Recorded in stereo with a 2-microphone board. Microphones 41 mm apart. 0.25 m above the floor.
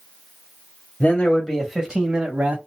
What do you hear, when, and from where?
1.0 s a man speaking: 30° left (ahead or behind), 1.0 m; by 2.6 s 45° right (ahead or behind), 1.3 m